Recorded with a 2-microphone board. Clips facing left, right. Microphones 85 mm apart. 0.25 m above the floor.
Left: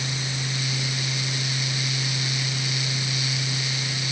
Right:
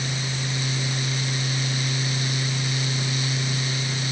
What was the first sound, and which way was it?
Only background noise.